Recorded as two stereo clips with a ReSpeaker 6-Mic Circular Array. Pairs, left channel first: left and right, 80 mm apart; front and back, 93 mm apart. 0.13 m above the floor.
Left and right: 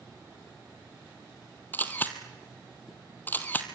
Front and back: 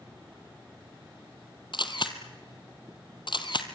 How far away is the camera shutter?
About 1.6 m.